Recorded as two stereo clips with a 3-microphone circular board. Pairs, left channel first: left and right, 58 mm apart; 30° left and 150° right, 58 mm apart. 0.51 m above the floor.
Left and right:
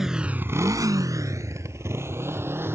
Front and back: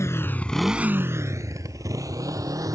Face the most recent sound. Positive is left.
turn(degrees=-140)